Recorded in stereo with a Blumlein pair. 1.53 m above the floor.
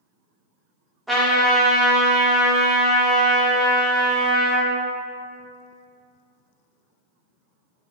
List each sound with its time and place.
1.1 s a trumpet: straight ahead, 0.7 m